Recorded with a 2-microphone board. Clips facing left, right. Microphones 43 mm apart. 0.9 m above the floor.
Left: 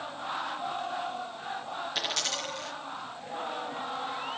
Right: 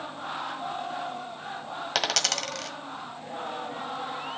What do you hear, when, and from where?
1.9 s a dropped coin: 75° right (ahead or behind), 1.6 m